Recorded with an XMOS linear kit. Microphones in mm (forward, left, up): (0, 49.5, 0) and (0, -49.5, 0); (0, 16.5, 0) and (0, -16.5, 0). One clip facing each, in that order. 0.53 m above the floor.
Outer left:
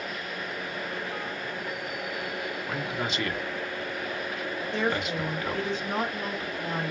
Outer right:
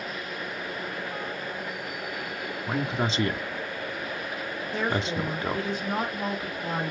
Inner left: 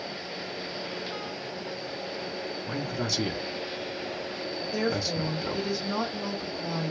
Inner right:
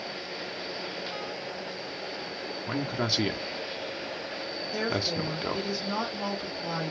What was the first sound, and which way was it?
A man speaking, 30° right (ahead or behind).